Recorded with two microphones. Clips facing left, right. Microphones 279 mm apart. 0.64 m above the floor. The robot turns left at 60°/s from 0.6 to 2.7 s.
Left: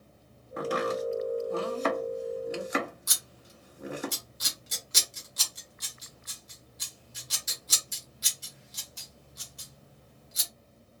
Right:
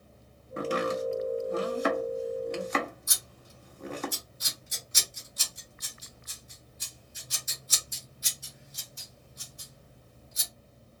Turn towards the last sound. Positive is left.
turn(degrees=70)  # may be behind; listen again after turning